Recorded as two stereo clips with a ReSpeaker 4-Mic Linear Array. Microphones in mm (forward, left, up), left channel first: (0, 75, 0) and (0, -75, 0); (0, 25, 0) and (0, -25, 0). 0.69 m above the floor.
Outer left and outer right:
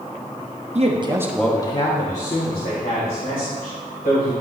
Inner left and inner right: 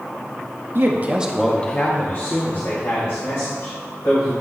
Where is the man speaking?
45° right (ahead or behind), 0.9 m; by 4.3 s 80° left, 3.5 m.